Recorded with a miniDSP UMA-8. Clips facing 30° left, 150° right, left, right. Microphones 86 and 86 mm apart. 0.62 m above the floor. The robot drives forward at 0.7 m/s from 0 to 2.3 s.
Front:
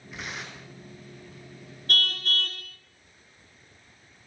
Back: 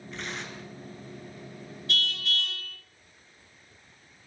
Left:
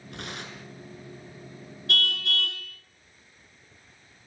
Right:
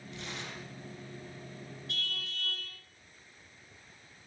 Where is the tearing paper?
115° left, 6 m; by 0.7 s 120° left, 6 m.